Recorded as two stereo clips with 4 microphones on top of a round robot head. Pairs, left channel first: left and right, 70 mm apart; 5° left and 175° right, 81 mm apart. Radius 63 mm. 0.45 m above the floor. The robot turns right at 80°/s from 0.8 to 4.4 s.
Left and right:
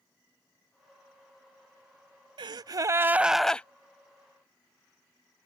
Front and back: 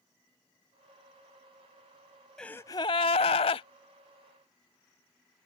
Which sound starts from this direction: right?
A gasp, at 2.4 s.